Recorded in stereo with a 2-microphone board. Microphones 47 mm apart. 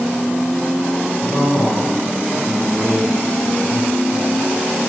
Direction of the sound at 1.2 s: 65° left (ahead or behind).